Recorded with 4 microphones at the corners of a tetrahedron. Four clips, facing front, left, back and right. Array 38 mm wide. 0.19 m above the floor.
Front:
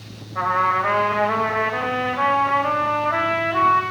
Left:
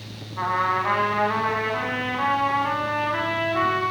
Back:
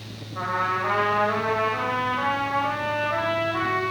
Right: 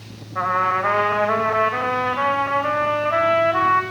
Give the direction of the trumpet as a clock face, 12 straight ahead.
2 o'clock.